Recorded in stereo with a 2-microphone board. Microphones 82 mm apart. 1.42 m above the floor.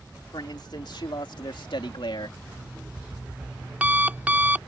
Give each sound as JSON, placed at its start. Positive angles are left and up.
{"t": 0.3, "sound": "a man speaking", "side_deg": 60}
{"t": 2.5, "sound": "an alarm clock", "side_deg": -15}